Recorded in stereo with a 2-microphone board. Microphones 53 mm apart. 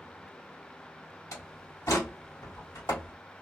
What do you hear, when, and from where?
1.3 s a door slam: 70° left (ahead or behind), 1.6 m